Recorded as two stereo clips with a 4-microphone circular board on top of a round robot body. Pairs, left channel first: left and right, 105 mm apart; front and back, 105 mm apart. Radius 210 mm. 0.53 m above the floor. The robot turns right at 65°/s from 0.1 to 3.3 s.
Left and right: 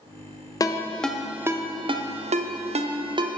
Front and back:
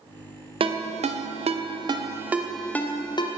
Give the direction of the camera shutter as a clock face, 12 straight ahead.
No camera shutter in this recording.